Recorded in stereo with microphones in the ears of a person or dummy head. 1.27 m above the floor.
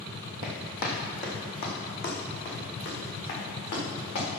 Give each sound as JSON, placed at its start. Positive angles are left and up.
{"t": 0.4, "sound": "running footsteps", "side_deg": 30, "distance_m": 2.0}